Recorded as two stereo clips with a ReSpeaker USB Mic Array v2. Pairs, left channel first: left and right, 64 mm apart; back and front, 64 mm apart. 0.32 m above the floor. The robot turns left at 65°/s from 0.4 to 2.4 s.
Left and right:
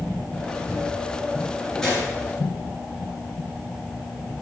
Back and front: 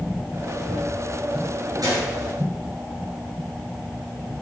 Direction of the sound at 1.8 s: 10° left.